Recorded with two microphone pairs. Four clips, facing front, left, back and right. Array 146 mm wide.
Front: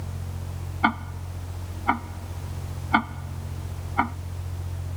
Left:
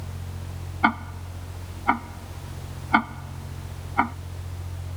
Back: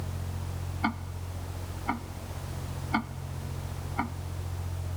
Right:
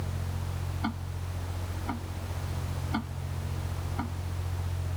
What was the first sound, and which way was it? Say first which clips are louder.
Ticking: left 13 dB, front 8 dB; 60° left.